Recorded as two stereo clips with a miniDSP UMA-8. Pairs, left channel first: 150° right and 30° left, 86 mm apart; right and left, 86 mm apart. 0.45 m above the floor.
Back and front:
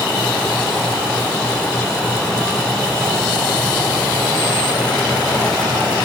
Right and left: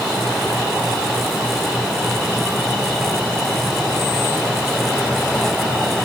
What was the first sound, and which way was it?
Only background noise.